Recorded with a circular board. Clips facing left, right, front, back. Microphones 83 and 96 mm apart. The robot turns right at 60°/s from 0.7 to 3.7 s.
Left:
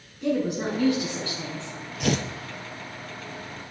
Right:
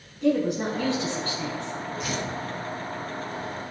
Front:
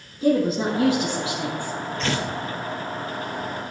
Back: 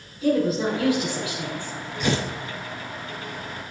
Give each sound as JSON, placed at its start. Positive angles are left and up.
{"t": 0.2, "sound": "a woman speaking", "azimuth_deg": 0, "distance_m": 1.7}
{"t": 2.0, "sound": "tearing paper", "azimuth_deg": 100, "distance_m": 0.6}